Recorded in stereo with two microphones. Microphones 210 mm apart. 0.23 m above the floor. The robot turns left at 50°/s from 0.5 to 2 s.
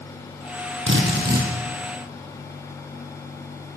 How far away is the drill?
About 4.5 m.